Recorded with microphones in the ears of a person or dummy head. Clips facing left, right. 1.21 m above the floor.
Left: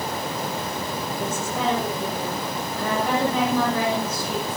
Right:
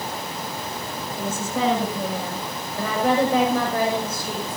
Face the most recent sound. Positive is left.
turn(degrees=-35)  # may be behind; listen again after turning